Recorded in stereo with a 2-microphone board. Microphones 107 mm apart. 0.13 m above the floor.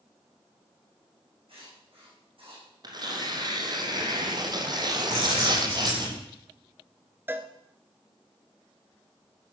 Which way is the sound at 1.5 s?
65° right (ahead or behind).